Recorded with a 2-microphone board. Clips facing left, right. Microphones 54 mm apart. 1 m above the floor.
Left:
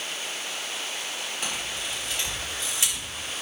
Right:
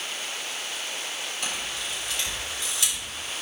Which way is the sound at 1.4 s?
25° left (ahead or behind).